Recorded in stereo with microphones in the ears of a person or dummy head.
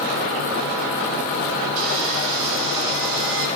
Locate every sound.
1.8 s sawing: 65° right (ahead or behind), 4 m